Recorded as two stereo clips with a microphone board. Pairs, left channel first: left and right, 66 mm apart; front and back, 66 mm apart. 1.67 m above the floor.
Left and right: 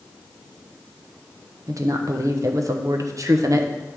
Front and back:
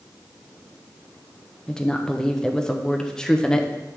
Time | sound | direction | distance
1.7 | a woman speaking | 80° right | 0.8 m